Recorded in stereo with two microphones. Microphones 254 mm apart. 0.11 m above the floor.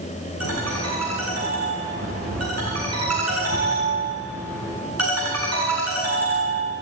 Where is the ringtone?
75° right (ahead or behind), 4 m.